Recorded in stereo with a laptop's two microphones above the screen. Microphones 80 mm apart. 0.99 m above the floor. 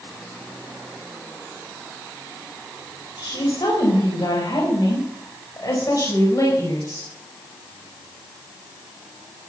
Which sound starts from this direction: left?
A woman speaking, at 3.2 s.